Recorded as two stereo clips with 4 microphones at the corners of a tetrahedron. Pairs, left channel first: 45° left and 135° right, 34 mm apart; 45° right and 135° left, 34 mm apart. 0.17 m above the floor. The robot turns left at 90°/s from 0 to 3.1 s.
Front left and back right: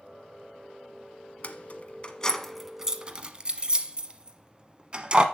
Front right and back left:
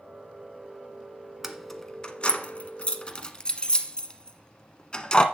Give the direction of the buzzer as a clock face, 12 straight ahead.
No buzzer in this recording.